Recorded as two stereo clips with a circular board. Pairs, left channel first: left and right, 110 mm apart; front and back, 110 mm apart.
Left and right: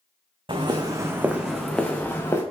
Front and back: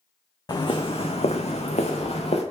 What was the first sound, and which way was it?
Footsteps, 50° right.